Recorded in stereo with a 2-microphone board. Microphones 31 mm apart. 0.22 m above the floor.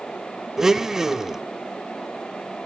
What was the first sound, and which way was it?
A blender, 20° right (ahead or behind).